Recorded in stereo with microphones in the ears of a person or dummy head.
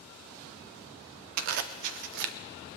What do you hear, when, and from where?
1.4 s a zipper: 50° right (ahead or behind), 0.5 m